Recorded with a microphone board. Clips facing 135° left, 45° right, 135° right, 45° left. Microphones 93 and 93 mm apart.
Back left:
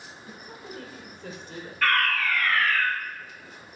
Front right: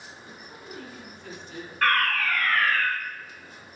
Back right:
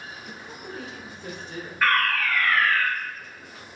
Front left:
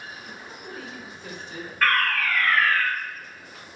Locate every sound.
0.3 s a woman speaking: 165° left, 2.5 m; by 1.7 s 175° right, 3.5 m
1.8 s a fire alarm: 50° right, 3 m